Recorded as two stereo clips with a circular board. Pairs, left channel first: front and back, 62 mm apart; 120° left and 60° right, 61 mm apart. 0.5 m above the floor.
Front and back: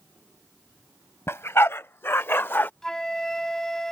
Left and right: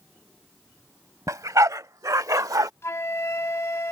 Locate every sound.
1.3 s a dog barking: 40° right; by 2.7 s 55° right
2.8 s a flute: 80° left